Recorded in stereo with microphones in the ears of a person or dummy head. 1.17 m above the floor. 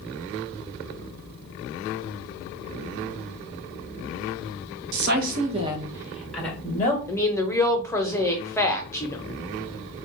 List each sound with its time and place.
4.9 s a woman speaking: 65° right (ahead or behind), 0.7 m; by 7.0 s 15° left (ahead or behind), 1.2 m
7.1 s a woman speaking: 15° left (ahead or behind), 0.6 m